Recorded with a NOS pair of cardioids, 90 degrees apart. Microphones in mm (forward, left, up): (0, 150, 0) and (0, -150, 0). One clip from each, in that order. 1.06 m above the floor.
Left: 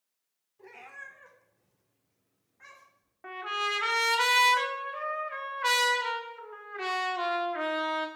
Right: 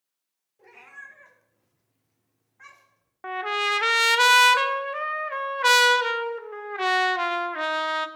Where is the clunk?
No clunk in this recording.